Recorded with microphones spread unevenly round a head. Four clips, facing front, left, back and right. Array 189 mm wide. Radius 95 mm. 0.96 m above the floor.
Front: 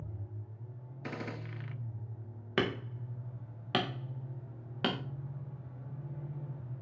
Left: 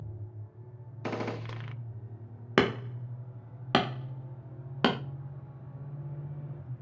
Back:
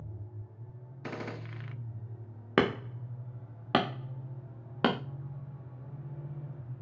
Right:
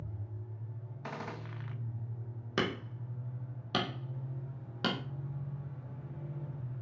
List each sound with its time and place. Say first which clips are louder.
1.0 s a gunshot: left 8 dB, back 1 dB; 100° left, 0.6 m
2.6 s hammering: left 8 dB, back 5 dB; 140° left, 0.8 m